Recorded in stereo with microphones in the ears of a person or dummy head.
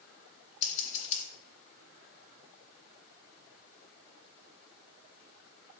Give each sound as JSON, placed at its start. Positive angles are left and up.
{"t": 0.6, "sound": "scissors", "side_deg": 40, "distance_m": 1.7}